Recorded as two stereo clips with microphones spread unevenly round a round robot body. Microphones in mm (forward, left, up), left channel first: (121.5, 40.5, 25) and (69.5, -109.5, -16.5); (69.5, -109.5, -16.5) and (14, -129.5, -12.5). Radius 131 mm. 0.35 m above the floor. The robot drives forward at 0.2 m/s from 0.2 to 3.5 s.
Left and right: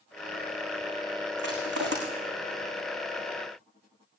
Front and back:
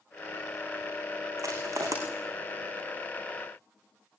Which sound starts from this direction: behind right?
Crushing, at 1.4 s.